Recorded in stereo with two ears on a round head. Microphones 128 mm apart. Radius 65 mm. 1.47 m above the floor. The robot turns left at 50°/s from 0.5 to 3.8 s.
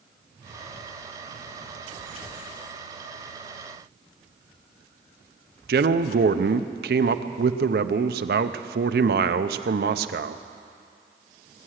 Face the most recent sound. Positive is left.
turn(degrees=-70)  # may be behind; listen again after turning